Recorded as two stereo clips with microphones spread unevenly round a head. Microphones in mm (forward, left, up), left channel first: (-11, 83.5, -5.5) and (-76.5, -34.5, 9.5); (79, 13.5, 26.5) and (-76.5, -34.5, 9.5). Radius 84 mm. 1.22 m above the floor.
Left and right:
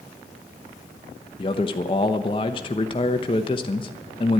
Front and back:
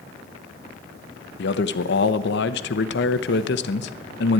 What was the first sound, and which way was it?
A man speaking, straight ahead.